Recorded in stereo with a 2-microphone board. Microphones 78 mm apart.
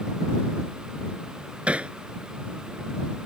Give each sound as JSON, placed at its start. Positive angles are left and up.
{"t": 1.7, "sound": "hammering", "side_deg": -15}